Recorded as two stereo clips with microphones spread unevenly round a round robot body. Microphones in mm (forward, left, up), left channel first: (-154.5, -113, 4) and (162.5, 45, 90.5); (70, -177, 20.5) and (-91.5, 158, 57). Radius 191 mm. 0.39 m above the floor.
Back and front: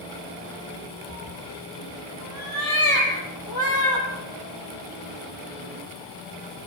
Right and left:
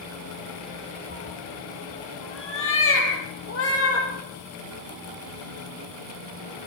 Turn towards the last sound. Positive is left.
turn(degrees=-120)